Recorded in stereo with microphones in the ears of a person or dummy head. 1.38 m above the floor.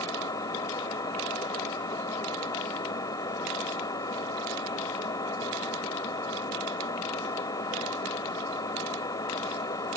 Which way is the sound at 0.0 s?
25° left (ahead or behind).